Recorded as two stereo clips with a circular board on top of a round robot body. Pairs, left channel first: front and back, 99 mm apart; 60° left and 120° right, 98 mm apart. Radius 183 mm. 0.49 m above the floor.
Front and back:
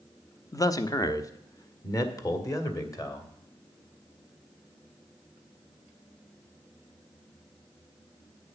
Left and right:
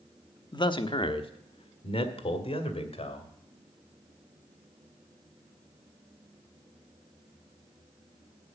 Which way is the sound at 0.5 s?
40° left.